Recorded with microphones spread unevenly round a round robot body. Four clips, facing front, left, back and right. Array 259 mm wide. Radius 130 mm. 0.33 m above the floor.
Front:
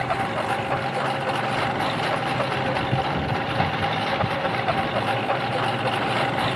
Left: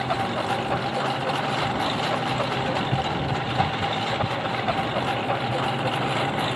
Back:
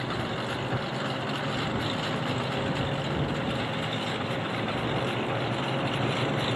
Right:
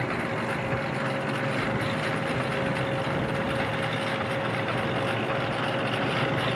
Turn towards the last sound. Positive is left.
turn(degrees=35)